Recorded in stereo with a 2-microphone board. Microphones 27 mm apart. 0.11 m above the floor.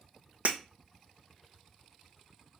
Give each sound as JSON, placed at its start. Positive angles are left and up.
{"t": 0.5, "sound": "breaking glass", "side_deg": -65, "distance_m": 0.7}